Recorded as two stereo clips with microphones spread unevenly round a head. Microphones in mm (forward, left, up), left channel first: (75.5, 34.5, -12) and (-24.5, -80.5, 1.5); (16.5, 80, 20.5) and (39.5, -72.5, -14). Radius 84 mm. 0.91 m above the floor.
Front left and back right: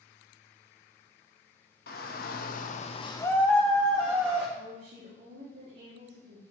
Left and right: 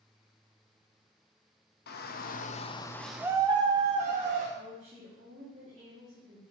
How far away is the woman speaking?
About 1.6 m.